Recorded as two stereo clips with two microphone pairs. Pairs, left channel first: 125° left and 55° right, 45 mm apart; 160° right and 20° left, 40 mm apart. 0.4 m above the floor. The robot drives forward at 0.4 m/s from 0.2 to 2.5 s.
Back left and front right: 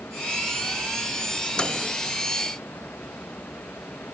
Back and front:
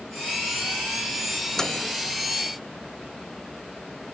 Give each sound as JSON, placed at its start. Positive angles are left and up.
{"t": 1.6, "sound": "a microwave", "azimuth_deg": 145, "distance_m": 0.7}